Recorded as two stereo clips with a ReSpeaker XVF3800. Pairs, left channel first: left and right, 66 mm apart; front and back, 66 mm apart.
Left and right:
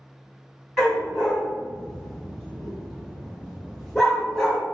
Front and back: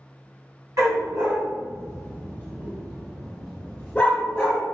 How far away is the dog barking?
About 1.7 m.